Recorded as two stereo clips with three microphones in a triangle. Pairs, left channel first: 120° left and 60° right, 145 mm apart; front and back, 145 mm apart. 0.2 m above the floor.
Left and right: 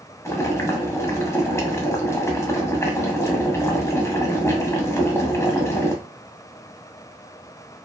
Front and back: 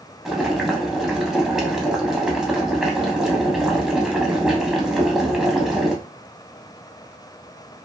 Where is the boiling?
100° left, 0.6 m.